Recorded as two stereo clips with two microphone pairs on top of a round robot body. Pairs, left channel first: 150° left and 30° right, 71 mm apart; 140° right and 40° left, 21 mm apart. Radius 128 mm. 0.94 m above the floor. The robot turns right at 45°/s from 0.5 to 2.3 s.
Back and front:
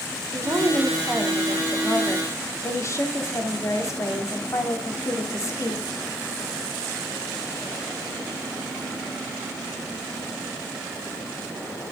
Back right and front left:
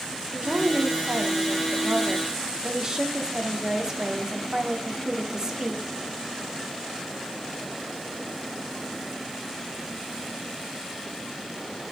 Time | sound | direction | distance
0.3 | a woman speaking | 25° left | 3.5 m